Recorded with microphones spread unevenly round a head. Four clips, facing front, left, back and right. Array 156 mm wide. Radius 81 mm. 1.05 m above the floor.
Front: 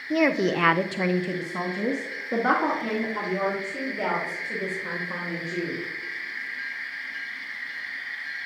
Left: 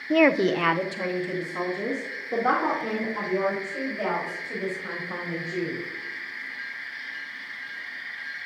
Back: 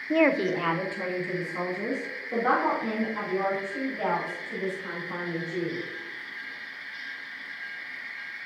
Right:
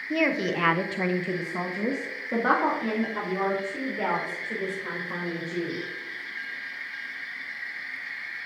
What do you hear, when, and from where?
0.1 s a woman speaking: 95° left, 0.6 m; by 5.8 s 45° right, 5.5 m